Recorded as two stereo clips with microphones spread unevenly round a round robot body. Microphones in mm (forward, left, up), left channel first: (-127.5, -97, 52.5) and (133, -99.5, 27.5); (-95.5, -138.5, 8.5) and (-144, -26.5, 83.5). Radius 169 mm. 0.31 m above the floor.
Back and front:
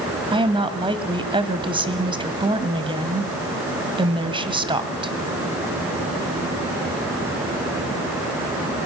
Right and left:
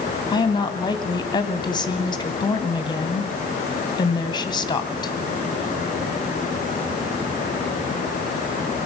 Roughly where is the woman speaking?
Ahead right.